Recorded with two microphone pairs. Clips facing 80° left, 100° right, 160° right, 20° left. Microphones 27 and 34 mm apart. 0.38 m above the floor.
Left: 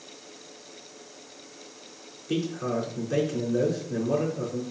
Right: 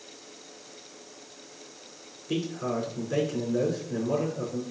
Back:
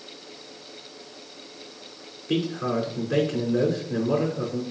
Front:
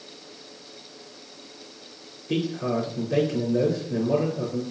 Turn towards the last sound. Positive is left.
turn(degrees=170)